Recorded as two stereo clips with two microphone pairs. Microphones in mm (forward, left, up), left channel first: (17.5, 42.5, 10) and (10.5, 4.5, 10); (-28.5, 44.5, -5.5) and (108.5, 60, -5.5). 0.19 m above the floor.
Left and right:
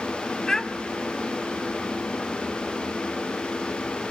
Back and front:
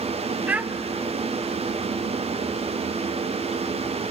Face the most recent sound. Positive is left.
turn(degrees=45)